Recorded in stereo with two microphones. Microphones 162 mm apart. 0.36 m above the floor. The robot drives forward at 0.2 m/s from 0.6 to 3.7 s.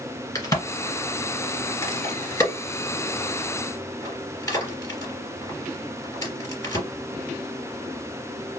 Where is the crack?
20° left (ahead or behind), 2.5 m; by 6.8 s 15° left (ahead or behind), 3 m.